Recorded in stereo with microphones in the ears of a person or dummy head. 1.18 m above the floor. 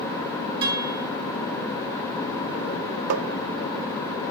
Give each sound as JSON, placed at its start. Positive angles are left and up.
{"t": 0.6, "sound": "a guitar", "side_deg": -25, "distance_m": 8.0}
{"t": 3.1, "sound": "tapping", "side_deg": -55, "distance_m": 0.9}